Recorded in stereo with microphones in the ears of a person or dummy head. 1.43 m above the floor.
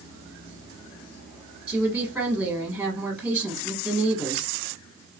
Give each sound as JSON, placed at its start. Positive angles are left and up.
{"t": 1.7, "sound": "a woman speaking", "side_deg": -5, "distance_m": 1.2}